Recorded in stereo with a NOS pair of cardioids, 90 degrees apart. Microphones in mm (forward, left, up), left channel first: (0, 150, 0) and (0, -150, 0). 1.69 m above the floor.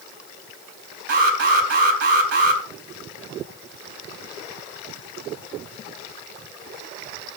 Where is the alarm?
50° right, 3 m.